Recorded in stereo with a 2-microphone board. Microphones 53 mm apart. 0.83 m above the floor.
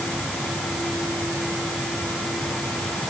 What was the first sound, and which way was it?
Only background noise.